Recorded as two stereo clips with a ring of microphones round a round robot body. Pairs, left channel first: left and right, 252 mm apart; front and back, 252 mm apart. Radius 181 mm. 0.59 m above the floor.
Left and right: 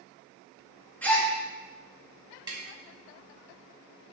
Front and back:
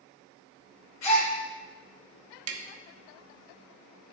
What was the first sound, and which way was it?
A gasp, 5° left.